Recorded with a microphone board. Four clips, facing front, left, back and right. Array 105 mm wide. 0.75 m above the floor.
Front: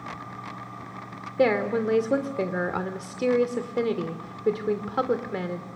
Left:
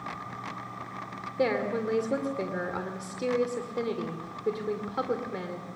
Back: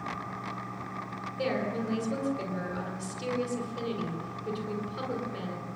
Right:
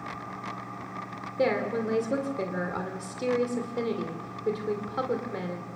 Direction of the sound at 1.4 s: 5° right.